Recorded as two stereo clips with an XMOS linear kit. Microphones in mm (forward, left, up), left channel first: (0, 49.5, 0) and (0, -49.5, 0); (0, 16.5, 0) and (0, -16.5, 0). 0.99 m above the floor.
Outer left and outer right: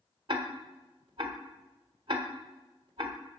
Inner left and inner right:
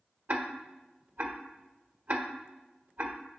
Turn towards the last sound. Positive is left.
turn(degrees=-55)  # may be behind; listen again after turning